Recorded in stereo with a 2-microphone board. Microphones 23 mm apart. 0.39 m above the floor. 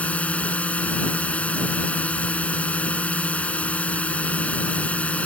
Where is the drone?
75° left (ahead or behind).